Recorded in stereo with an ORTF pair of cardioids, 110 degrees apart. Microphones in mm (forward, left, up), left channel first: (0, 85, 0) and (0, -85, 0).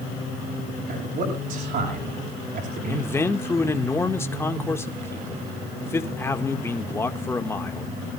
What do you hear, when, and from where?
0.9 s a man speaking: 60° right, 7.5 m
2.9 s a man speaking: 15° left, 2 m